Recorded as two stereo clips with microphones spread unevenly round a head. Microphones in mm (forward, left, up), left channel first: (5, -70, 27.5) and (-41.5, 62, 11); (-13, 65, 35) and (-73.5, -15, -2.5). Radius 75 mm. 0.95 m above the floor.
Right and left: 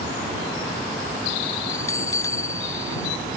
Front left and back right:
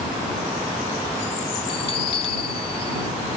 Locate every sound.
1.7 s a bell: straight ahead